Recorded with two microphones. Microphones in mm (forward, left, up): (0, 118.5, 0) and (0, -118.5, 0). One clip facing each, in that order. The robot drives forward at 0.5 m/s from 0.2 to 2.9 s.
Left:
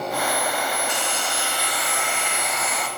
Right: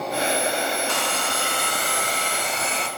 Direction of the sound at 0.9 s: 70° right (ahead or behind).